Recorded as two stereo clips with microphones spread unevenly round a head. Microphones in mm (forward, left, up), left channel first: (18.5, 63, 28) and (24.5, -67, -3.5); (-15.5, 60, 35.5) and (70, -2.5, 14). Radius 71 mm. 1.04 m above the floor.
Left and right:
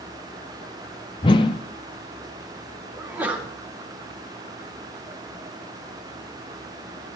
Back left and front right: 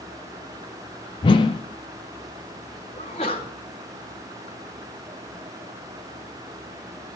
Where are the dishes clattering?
I don't hear dishes clattering.